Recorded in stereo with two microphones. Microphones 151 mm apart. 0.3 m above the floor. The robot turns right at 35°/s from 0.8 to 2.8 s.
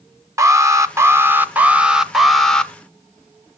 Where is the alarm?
20° right (ahead or behind), 0.7 m; by 2.7 s 5° left (ahead or behind), 0.7 m.